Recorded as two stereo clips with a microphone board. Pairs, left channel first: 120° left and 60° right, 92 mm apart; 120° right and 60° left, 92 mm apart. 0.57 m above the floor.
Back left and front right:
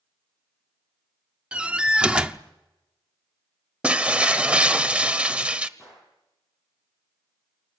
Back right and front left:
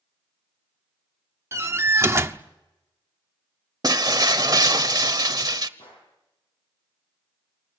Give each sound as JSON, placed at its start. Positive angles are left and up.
{"t": 1.5, "sound": "a door slam", "azimuth_deg": 15, "distance_m": 0.8}
{"t": 3.8, "sound": "breaking glass", "azimuth_deg": 15, "distance_m": 0.9}
{"t": 5.8, "sound": "a gunshot", "azimuth_deg": -145, "distance_m": 7.5}